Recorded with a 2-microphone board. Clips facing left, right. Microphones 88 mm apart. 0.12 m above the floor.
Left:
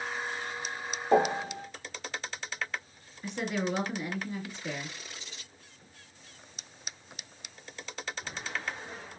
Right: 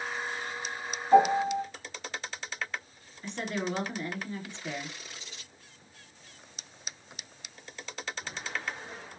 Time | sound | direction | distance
1.1 | a piano | 70° left (ahead or behind) | 0.8 m
3.2 | a woman speaking | 10° left (ahead or behind) | 1.4 m